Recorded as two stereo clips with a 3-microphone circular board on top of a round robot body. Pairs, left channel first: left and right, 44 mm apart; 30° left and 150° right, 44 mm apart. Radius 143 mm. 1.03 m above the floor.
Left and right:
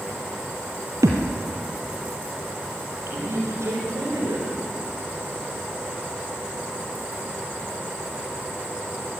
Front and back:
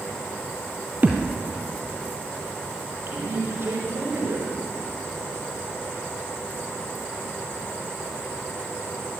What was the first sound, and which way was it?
A thud, 90° right.